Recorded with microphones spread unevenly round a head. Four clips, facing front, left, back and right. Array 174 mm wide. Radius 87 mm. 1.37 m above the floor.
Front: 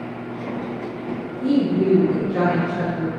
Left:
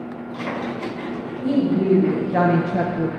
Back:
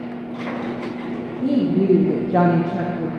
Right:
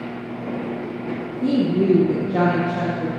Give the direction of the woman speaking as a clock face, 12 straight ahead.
5 o'clock.